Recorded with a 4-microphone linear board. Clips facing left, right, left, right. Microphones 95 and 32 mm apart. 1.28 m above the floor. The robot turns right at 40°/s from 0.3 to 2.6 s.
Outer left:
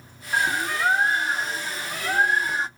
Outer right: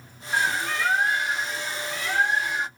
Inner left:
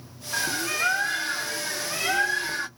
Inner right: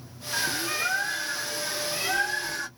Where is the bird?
25° left, 0.7 m; by 2.7 s 115° left, 0.7 m.